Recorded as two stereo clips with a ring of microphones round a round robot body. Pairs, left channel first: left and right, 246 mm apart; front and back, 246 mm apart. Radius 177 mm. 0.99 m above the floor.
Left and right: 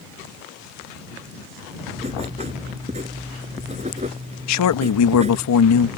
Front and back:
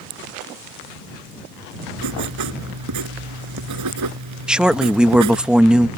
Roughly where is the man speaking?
Left.